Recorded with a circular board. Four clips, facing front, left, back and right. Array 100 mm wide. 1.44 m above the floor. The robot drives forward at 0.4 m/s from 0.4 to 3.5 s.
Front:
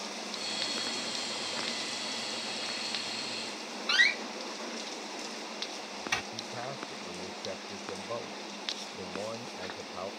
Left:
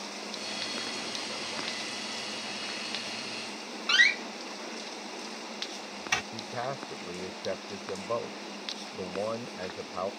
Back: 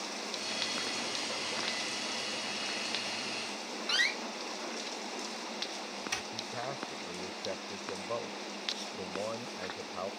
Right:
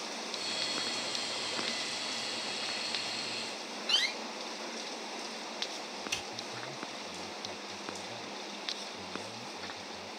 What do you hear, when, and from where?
3.9 s a door slam: 70° left
6.3 s a man speaking: 95° left